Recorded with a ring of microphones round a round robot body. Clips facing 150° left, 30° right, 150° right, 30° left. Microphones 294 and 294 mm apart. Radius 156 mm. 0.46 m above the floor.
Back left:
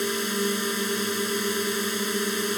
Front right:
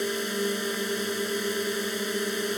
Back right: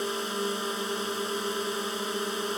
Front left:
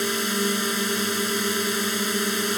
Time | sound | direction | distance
0.0 | a drone | 80° left | ?